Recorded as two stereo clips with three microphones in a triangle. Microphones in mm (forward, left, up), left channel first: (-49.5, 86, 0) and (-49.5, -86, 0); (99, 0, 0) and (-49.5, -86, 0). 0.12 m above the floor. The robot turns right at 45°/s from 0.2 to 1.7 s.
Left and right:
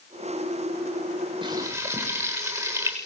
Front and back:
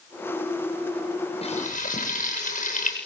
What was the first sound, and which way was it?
Frying, 30° right.